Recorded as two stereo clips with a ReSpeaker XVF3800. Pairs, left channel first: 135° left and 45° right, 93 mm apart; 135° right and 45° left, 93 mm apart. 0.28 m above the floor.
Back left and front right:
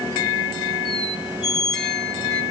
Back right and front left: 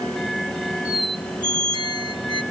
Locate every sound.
0.8 s a squeak: 50° left, 1.6 m